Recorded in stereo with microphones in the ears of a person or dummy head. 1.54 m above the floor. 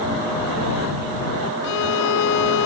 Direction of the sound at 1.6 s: 80° left.